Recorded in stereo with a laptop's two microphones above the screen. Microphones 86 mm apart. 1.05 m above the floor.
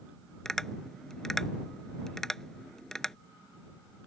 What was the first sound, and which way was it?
Tapping, 5° left (ahead or behind).